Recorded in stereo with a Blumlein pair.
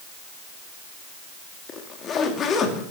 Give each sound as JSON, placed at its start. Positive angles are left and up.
{"t": 1.7, "sound": "a zipper", "azimuth_deg": 25, "distance_m": 2.0}